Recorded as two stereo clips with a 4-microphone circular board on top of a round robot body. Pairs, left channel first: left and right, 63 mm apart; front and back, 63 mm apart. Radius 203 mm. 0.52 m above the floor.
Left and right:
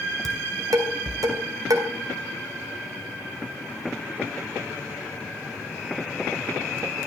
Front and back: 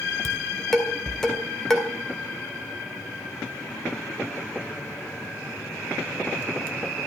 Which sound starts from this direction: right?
Dishes clattering, at 0.2 s.